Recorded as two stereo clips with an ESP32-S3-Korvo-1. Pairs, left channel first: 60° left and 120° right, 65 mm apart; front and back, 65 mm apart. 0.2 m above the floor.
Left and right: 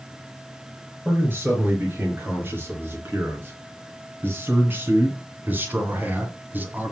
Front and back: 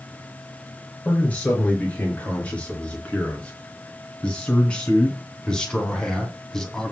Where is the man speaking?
70° right, 4 m; by 6.9 s 80° right, 1.8 m.